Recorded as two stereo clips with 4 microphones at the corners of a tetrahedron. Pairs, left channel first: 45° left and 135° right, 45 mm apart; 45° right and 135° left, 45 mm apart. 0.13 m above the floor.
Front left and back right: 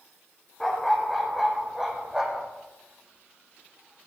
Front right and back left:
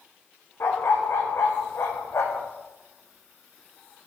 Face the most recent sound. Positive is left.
turn(degrees=-65)